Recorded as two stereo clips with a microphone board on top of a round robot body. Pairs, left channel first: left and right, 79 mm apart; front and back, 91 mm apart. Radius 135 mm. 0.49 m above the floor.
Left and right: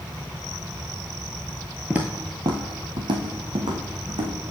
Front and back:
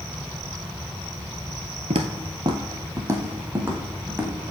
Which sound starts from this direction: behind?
Footsteps, at 1.9 s.